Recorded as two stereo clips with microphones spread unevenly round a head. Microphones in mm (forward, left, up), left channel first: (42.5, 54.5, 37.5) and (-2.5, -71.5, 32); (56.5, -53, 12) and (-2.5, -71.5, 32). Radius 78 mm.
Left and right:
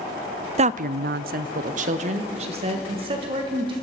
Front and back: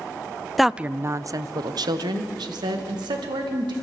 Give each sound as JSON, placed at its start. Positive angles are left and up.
{"t": 0.6, "sound": "a woman speaking", "azimuth_deg": -70, "distance_m": 0.6}